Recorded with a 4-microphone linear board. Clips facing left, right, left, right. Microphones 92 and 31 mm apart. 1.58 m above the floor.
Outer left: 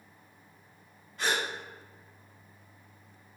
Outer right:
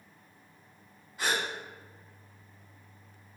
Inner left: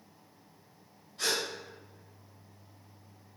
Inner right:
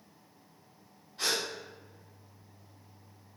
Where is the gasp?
10° right (ahead or behind), 1.4 m.